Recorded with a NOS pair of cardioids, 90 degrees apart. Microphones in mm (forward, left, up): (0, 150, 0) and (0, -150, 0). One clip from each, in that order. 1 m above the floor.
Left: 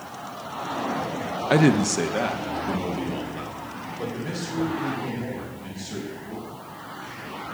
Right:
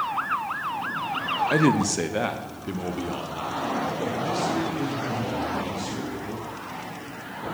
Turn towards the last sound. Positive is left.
turn(degrees=-15)